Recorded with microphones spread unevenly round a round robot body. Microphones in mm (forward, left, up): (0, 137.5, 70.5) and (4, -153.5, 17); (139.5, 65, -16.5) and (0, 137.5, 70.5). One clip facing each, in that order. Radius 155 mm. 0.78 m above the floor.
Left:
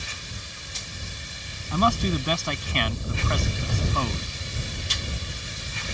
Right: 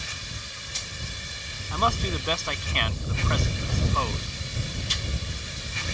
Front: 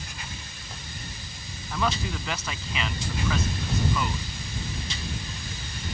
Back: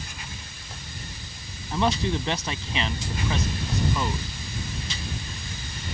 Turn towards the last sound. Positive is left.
turn(degrees=95)